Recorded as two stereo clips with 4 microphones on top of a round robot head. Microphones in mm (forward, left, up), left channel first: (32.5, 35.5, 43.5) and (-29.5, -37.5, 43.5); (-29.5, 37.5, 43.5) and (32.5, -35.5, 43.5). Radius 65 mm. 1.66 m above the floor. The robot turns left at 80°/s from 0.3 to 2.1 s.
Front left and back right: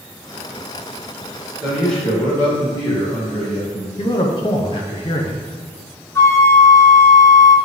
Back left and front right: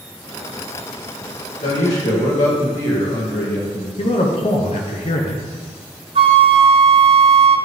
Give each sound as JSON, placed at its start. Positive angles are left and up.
{"t": 1.6, "sound": "a man speaking", "azimuth_deg": 155, "distance_m": 2.0}
{"t": 4.0, "sound": "a man speaking", "azimuth_deg": 95, "distance_m": 0.8}
{"t": 6.2, "sound": "a flute", "azimuth_deg": -15, "distance_m": 0.6}